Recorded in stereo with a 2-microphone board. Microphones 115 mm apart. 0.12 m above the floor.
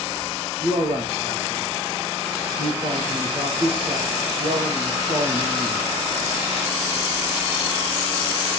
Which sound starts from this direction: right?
A man speaking, at 0.6 s.